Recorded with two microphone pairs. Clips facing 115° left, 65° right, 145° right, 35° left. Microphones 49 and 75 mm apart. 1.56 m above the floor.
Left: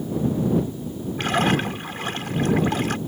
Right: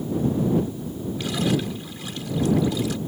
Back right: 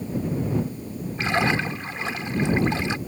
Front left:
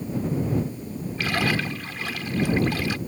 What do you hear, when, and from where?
1.2 s a splash: 150° left